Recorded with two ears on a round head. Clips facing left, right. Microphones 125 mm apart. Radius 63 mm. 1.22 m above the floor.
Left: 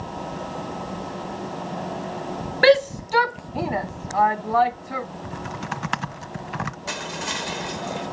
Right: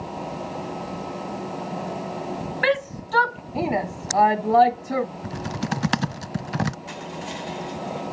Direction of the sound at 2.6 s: 45° left (ahead or behind).